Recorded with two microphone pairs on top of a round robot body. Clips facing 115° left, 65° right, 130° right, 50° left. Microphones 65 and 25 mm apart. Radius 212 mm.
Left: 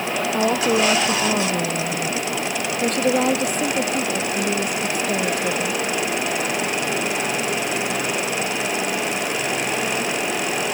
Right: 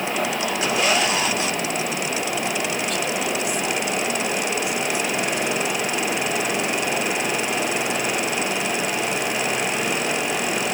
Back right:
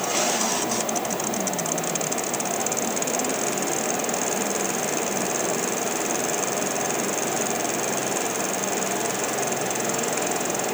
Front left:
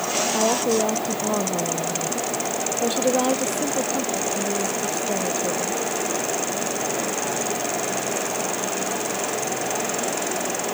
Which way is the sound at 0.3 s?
60° left.